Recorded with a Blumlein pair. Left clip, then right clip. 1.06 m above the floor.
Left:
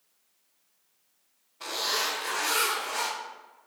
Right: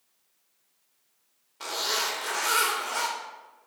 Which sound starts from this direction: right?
A zipper, at 1.6 s.